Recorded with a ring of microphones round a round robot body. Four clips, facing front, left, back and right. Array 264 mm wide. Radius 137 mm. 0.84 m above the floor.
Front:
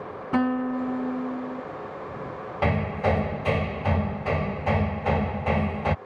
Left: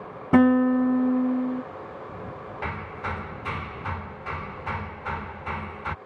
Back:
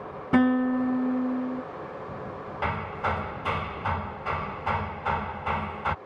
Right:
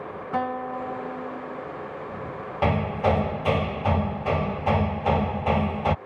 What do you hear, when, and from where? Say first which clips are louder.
0.3 s a guitar: left 10 dB, back 3 dB; 100° left
2.6 s hammering: right 11 dB, front 5 dB; 55° right